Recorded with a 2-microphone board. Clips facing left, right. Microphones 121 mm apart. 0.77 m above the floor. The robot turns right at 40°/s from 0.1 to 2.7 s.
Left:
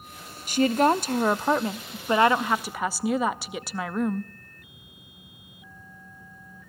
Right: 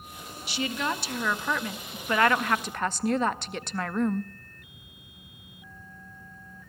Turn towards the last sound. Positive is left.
turn(degrees=170)